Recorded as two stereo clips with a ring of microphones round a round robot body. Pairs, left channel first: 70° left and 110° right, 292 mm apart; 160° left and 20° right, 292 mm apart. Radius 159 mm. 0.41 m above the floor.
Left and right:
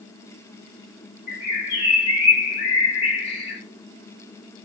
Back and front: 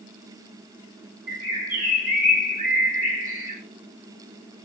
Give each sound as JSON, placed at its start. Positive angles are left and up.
{"t": 1.3, "sound": "a bird", "azimuth_deg": 60, "distance_m": 2.5}